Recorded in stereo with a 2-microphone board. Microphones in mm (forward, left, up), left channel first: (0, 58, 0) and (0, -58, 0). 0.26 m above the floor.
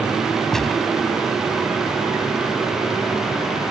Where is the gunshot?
5° left (ahead or behind).